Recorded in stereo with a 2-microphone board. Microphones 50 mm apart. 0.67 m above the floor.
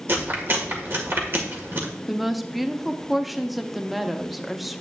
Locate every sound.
0.1 s chewing: 50° right (ahead or behind), 1.7 m
2.1 s a woman speaking: centre (ahead or behind), 0.6 m